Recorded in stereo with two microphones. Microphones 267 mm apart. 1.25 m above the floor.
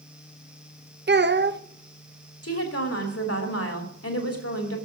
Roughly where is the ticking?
I don't hear ticking.